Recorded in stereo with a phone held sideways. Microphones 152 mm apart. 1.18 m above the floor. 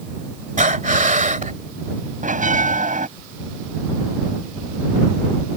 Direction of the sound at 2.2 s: 60° right (ahead or behind).